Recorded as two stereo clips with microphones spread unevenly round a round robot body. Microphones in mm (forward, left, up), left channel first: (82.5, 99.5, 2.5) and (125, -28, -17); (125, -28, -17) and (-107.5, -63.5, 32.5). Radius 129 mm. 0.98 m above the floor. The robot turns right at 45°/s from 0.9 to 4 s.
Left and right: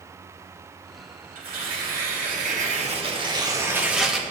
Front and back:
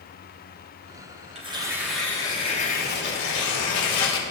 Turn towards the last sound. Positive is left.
turn(degrees=15)